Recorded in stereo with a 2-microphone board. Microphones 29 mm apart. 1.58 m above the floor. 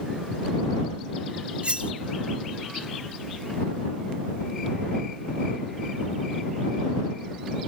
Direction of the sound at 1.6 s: 45° right (ahead or behind).